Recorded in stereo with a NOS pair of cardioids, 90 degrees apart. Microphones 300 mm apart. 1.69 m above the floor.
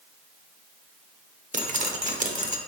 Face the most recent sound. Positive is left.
turn(degrees=-25)